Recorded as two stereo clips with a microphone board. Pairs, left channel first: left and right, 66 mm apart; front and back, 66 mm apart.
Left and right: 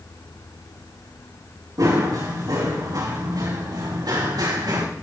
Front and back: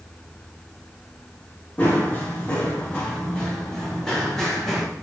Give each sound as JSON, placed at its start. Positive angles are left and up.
{"t": 1.8, "sound": "running footsteps", "azimuth_deg": -70, "distance_m": 6.0}